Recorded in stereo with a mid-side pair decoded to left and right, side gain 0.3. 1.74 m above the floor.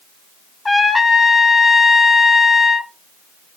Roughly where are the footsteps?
I don't hear footsteps.